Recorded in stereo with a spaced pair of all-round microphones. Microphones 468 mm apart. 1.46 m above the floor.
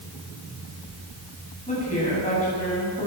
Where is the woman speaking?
15° left (ahead or behind), 10 m.